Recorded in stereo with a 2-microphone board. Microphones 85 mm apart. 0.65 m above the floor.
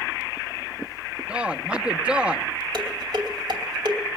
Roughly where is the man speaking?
Centre.